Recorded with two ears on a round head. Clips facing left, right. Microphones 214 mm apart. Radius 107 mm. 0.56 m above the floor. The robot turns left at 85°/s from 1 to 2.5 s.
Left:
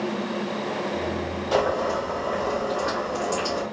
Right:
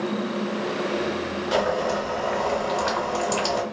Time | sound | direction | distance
1.5 | boiling | 15° right | 1.5 m